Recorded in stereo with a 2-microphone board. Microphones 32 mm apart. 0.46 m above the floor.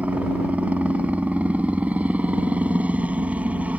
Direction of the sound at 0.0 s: 50° right (ahead or behind).